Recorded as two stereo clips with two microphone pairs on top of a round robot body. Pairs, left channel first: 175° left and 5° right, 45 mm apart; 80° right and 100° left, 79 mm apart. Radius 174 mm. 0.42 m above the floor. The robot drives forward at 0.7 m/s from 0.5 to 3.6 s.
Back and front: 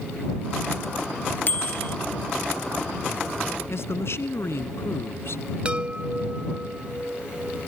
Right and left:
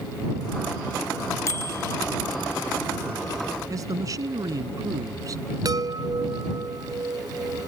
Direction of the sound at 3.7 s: 150° left.